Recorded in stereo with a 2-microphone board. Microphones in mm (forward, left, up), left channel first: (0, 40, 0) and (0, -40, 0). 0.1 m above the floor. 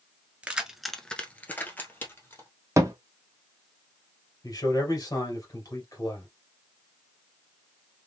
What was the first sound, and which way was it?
Keys jangling, 15° right (ahead or behind).